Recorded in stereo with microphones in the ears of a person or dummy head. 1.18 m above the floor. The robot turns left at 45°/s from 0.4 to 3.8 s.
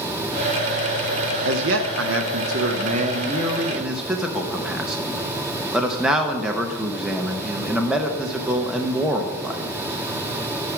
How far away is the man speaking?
About 0.8 m.